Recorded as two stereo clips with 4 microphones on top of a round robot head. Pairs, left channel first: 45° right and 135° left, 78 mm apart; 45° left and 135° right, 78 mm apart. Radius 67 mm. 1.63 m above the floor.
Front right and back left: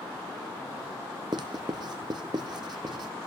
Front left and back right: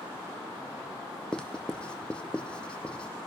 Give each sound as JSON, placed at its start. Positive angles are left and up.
{"t": 1.3, "sound": "writing", "azimuth_deg": 125, "distance_m": 0.6}